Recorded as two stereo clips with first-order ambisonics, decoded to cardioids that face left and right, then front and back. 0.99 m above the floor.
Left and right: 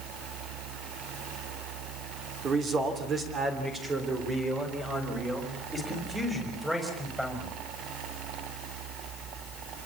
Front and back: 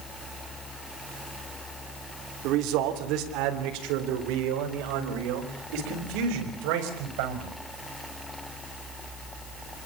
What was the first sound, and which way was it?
A man speaking, 155° right.